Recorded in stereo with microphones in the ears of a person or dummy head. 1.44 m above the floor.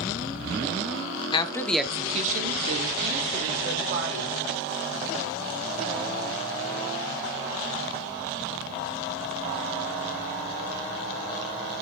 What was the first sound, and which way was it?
A woman speaking, 25° left (ahead or behind).